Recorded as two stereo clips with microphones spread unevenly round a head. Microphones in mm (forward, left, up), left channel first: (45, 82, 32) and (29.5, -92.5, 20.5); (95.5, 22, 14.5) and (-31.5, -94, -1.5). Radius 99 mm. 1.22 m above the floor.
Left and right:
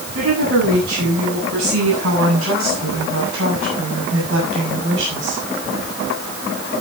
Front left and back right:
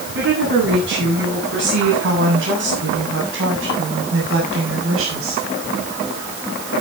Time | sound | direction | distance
0.1 | a woman speaking | 115° right | 9.5 m